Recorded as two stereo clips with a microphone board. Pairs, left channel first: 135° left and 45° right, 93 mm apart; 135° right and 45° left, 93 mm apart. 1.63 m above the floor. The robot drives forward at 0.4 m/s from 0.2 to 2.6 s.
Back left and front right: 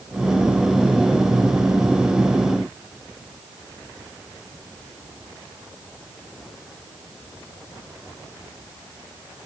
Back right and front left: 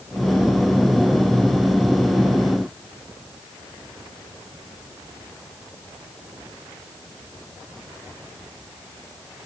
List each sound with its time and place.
Only background noise.